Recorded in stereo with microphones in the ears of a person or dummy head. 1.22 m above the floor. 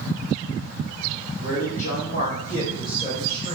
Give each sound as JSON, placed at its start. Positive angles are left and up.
{"t": 1.4, "sound": "a man speaking", "side_deg": 55, "distance_m": 1.1}